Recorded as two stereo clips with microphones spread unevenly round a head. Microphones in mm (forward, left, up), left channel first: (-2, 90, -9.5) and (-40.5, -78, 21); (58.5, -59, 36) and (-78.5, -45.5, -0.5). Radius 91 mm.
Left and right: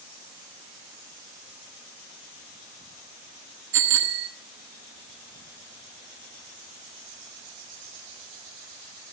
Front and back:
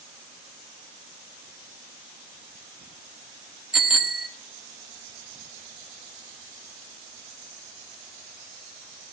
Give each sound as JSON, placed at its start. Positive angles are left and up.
{"t": 3.7, "sound": "a bicycle bell", "azimuth_deg": -100, "distance_m": 4.5}